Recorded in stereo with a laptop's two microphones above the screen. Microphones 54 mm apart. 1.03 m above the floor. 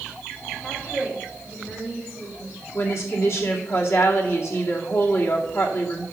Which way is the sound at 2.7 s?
55° left (ahead or behind).